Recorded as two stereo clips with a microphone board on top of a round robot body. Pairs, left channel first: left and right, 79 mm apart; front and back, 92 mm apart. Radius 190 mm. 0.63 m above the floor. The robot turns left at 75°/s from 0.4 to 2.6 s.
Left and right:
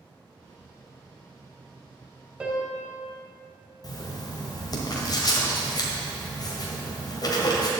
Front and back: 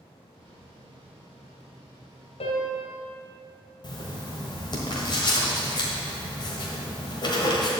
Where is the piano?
10° right, 1.3 m; by 2.9 s 25° right, 1.3 m.